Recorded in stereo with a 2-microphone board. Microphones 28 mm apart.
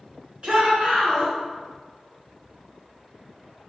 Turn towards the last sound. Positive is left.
turn(degrees=-40)  # may be behind; listen again after turning